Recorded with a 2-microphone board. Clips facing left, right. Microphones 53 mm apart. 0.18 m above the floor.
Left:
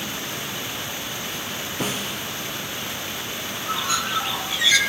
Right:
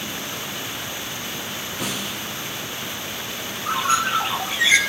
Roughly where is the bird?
Right.